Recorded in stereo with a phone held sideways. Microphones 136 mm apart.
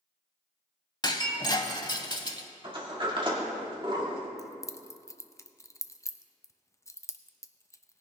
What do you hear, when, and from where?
1.0 s breaking glass: 30° left (ahead or behind), 0.8 m
2.6 s a sliding door: 35° right (ahead or behind), 2.0 m
4.4 s keys jangling: 20° left (ahead or behind), 0.5 m